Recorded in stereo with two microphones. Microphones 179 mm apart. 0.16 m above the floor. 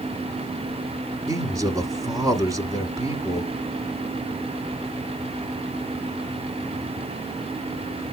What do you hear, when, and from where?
1.3 s a man speaking: 20° right (ahead or behind), 1.1 m